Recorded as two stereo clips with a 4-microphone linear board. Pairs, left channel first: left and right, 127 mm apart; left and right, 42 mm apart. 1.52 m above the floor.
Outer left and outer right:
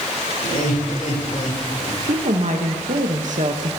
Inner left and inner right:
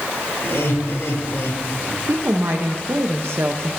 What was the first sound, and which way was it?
Laughter, 85° left.